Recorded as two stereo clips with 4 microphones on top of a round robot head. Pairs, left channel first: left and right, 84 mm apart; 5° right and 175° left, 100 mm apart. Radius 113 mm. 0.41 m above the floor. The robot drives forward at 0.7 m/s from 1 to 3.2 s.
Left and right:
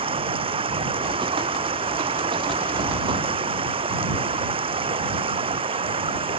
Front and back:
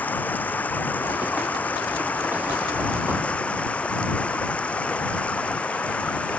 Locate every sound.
0.0 s running water: 85° right